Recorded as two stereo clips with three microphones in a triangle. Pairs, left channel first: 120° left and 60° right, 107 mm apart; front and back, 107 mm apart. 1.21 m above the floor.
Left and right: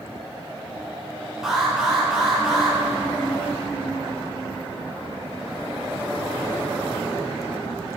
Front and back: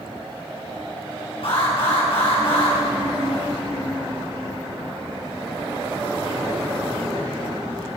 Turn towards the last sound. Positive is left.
turn(degrees=30)